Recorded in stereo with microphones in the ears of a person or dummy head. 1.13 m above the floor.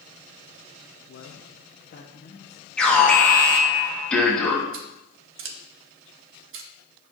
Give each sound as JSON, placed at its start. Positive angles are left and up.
{"t": 1.1, "sound": "a man speaking", "side_deg": 60, "distance_m": 1.0}
{"t": 2.8, "sound": "an alarm", "side_deg": 15, "distance_m": 1.4}
{"t": 4.7, "sound": "scissors", "side_deg": -60, "distance_m": 1.2}